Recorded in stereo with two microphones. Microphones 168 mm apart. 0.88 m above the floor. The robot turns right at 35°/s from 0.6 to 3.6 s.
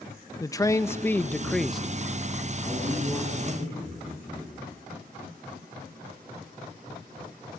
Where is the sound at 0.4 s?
140° left, 0.6 m; by 1.9 s 175° right, 0.6 m.